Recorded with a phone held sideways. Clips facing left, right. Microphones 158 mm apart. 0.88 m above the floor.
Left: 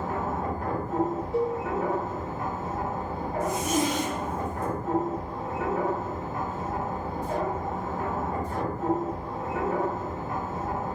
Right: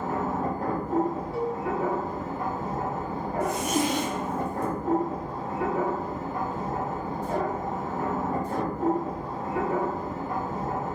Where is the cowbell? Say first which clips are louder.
Left 6 dB; 20° left (ahead or behind), 1.2 m.